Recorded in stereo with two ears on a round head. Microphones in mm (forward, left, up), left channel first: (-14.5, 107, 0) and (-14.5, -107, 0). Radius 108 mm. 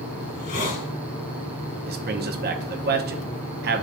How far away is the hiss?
About 2 m.